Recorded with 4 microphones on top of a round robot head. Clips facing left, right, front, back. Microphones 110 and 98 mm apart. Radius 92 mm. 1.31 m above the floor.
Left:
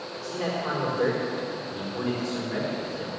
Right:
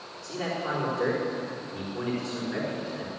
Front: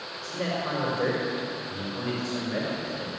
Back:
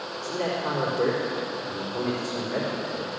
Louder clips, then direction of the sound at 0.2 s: Left 2 dB, back 2 dB; 165° right.